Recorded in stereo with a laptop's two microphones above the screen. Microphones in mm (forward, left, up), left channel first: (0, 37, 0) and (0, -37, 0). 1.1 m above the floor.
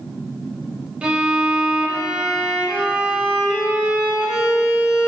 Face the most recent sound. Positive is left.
turn(degrees=-15)  # may be behind; listen again after turning